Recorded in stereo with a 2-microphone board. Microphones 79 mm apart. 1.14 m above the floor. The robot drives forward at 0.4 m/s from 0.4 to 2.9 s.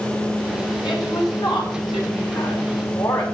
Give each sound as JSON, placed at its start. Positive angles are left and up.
{"t": 0.8, "sound": "a woman speaking", "side_deg": 70, "distance_m": 5.5}